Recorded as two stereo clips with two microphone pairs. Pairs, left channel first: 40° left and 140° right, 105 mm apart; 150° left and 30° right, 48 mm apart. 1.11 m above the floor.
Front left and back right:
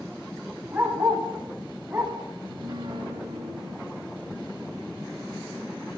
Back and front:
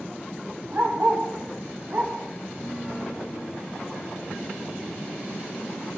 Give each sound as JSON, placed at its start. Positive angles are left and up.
{"t": 0.7, "sound": "a dog barking", "azimuth_deg": -65, "distance_m": 5.5}
{"t": 2.4, "sound": "a piano", "azimuth_deg": -105, "distance_m": 3.5}